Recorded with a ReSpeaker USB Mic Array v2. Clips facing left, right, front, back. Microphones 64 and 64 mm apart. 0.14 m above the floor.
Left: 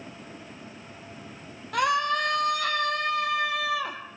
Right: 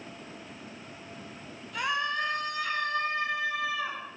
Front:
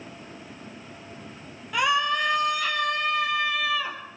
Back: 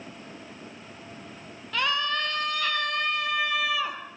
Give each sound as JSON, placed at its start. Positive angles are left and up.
{"t": 1.7, "sound": "a scream", "azimuth_deg": 75, "distance_m": 4.5}